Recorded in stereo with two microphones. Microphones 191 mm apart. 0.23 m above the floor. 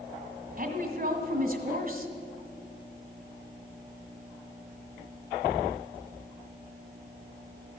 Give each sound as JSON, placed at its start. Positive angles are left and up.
{"t": 0.6, "sound": "a woman speaking", "side_deg": -50, "distance_m": 1.7}